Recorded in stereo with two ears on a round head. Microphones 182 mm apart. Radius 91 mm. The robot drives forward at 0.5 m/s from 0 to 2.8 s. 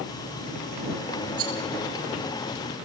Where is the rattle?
80° right, 9.5 m.